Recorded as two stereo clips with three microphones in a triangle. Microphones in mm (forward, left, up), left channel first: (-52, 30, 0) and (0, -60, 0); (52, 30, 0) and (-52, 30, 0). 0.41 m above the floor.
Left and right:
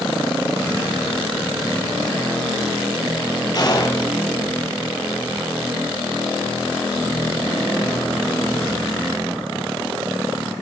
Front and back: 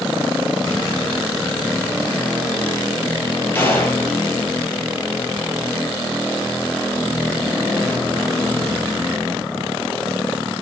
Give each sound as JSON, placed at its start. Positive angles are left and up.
{"t": 3.5, "sound": "a gunshot", "azimuth_deg": 70, "distance_m": 5.5}